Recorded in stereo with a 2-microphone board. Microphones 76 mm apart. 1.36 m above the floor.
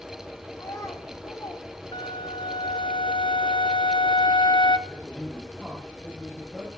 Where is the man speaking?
Centre (ahead or behind), 7.5 m.